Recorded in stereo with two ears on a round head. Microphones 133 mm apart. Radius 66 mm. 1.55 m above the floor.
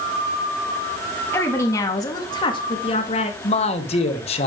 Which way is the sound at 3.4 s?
45° left (ahead or behind).